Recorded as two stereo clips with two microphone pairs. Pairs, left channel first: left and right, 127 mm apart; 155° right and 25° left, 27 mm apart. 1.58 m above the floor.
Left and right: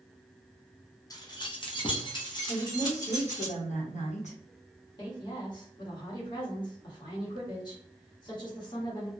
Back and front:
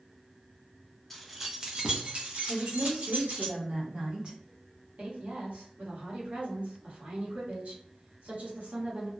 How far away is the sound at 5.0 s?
About 1.3 m.